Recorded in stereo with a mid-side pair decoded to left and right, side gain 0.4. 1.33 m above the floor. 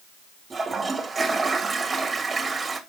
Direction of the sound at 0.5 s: 35° right.